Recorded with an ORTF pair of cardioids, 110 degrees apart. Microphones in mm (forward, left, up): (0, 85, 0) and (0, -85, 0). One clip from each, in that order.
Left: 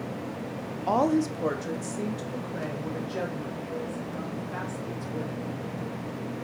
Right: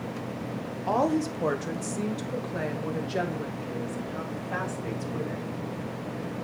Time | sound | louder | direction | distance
0.9 | a woman speaking | left 1 dB | 15° left | 1.1 m